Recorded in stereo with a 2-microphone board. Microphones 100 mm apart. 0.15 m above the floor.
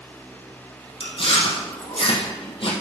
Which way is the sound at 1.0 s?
65° left (ahead or behind).